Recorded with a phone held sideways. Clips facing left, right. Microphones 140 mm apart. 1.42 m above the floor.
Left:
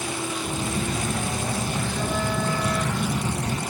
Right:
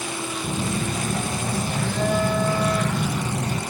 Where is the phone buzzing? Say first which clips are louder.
Right 3 dB; 65° right (ahead or behind), 2.5 m.